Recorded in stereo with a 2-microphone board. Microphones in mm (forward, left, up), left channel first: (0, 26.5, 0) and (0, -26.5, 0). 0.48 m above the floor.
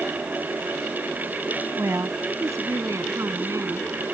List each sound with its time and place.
1.8 s a woman speaking: 75° right (ahead or behind); by 3.9 s 70° right (ahead or behind)